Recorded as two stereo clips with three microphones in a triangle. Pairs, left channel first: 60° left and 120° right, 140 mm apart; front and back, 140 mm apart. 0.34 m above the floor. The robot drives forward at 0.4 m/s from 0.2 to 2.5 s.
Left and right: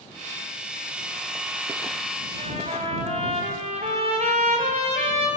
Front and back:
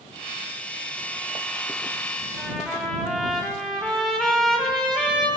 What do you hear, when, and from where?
2.4 s a trumpet: 80° right, 10 m